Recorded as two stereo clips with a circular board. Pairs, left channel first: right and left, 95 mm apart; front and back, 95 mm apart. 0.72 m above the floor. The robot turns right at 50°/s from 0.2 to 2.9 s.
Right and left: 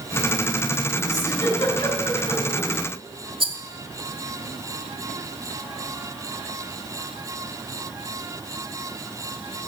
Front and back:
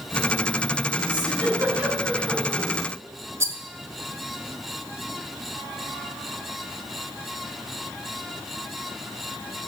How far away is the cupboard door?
No cupboard door in this recording.